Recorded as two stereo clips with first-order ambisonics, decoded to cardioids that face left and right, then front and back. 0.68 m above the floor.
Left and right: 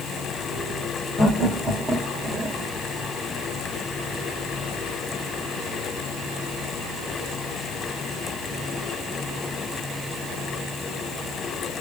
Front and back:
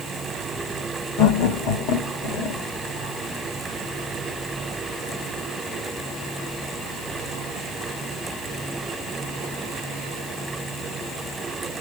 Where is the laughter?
20° left, 2 m; by 2.6 s 20° right, 2 m.